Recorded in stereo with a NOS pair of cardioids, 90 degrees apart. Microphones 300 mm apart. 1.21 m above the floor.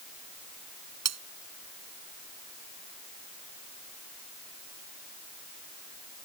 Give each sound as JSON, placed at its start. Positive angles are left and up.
{"t": 1.1, "sound": "cutlery clinking", "azimuth_deg": -60}